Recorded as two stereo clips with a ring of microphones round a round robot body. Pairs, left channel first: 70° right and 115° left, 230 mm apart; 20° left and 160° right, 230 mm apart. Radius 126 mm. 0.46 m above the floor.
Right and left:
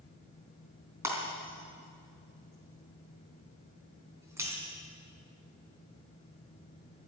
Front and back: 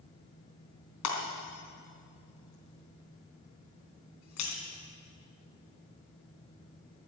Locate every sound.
1.0 s breaking glass: 35° left, 3.5 m